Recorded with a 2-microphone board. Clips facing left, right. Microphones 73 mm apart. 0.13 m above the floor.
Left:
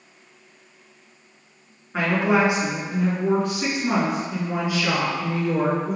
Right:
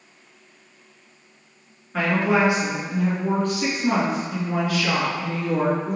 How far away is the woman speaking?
About 1.5 m.